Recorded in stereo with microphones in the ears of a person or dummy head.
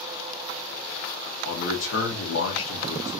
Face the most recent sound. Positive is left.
turn(degrees=75)  # may be behind; listen again after turning